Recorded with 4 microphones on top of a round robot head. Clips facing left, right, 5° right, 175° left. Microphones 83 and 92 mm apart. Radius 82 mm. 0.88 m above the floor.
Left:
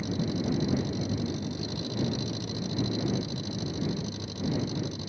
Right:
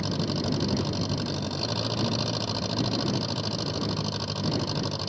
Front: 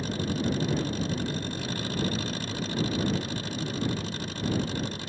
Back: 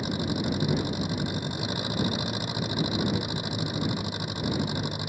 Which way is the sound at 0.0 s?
105° right.